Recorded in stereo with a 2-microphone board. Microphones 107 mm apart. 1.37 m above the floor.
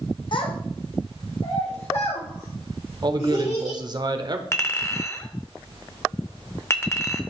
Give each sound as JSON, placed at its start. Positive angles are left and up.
{"t": 0.3, "sound": "a child speaking", "side_deg": 50, "distance_m": 0.8}
{"t": 3.0, "sound": "a man speaking", "side_deg": -40, "distance_m": 0.7}
{"t": 4.5, "sound": "a clink", "side_deg": 25, "distance_m": 0.7}